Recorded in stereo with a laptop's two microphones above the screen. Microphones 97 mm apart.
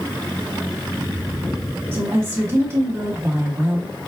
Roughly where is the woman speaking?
Right.